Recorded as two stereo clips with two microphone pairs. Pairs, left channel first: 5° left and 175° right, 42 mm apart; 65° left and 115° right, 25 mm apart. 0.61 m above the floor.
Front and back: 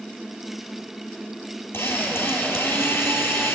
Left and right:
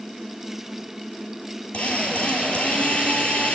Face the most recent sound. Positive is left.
turn(degrees=30)